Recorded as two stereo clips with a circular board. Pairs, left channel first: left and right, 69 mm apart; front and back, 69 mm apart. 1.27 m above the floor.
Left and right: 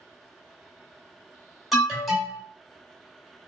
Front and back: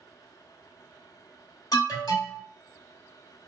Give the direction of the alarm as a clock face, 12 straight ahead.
12 o'clock.